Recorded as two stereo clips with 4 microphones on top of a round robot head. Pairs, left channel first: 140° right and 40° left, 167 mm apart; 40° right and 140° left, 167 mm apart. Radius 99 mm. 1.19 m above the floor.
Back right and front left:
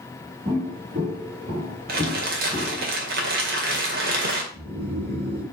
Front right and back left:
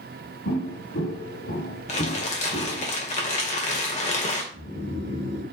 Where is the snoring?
10° right, 3.5 m.